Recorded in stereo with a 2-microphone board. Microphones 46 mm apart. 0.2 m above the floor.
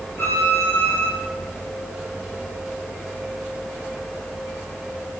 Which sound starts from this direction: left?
A violin, at 0.2 s.